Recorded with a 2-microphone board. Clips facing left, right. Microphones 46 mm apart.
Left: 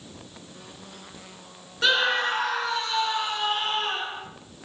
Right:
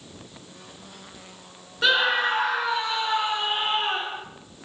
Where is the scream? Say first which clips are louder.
Right 1 dB; 5° right (ahead or behind), 1.5 m; by 4.2 s 20° right (ahead or behind), 3.5 m.